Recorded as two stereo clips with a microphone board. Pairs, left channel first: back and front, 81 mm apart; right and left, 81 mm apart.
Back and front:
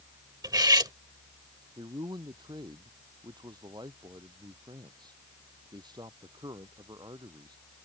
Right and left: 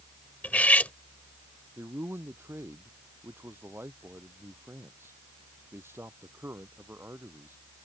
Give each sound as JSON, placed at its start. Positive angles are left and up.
{"t": 0.4, "sound": "cutlery clinking", "azimuth_deg": -20}
{"t": 1.8, "sound": "a man speaking", "azimuth_deg": 30}